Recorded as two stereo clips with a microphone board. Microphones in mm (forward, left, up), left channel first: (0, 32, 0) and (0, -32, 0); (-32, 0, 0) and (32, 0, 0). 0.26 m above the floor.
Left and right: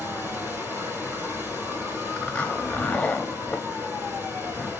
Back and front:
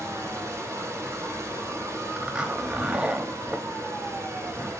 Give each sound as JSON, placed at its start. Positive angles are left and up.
{"t": 0.0, "sound": "running water", "azimuth_deg": -30, "distance_m": 2.5}
{"t": 2.2, "sound": "a zipper", "azimuth_deg": 45, "distance_m": 0.9}